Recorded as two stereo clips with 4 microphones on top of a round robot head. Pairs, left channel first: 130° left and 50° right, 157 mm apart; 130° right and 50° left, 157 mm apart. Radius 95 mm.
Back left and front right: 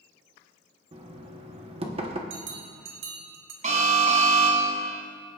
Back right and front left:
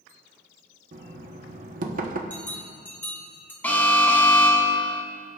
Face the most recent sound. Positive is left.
turn(degrees=-55)